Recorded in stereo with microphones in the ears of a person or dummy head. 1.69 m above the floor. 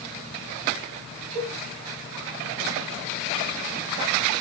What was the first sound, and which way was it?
A cowbell, 40° right (ahead or behind).